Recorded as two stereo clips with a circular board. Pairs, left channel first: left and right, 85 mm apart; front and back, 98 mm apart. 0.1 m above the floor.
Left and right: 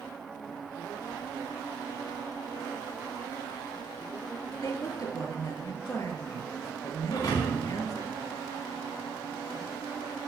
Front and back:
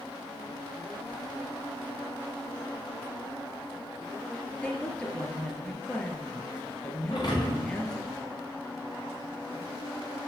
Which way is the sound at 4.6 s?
75° left.